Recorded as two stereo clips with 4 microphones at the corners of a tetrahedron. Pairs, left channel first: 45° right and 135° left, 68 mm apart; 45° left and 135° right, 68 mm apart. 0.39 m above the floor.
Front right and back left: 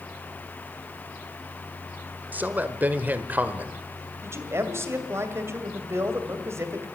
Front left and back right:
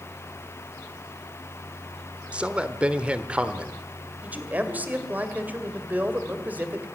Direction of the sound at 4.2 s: 165° left.